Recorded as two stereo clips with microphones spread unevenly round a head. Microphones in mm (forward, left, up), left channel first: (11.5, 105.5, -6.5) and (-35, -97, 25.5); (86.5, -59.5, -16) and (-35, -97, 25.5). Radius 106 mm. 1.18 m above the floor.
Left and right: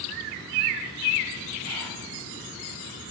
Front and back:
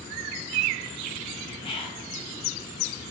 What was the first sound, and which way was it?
Whispering, 30° right.